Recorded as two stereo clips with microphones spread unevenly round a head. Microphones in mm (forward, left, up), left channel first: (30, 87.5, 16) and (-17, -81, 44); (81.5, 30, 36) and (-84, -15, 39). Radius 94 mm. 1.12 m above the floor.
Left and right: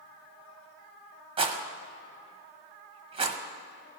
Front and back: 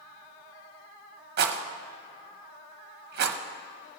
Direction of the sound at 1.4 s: 170° right.